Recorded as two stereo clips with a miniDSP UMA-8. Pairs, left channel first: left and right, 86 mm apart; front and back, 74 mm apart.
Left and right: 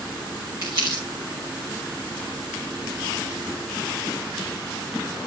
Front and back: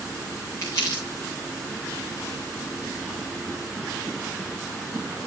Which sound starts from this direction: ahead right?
Crumpling, at 0.6 s.